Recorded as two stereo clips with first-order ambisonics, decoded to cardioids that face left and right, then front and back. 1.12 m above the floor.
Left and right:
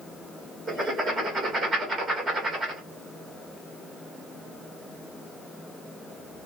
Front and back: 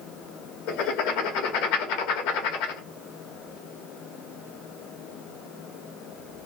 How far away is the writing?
About 1.4 m.